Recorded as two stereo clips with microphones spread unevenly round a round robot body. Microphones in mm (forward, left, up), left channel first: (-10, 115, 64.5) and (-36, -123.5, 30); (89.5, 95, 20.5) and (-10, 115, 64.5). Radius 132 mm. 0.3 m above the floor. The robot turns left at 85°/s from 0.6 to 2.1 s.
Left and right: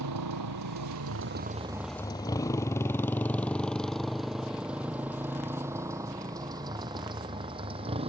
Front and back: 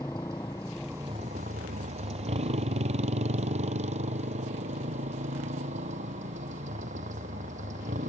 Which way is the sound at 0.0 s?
90° right.